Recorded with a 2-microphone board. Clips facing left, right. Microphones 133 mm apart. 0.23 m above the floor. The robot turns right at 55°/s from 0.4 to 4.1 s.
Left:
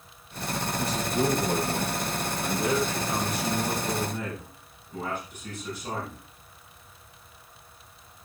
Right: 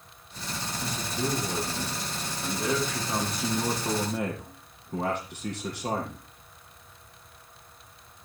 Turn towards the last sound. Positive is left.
turn(degrees=-100)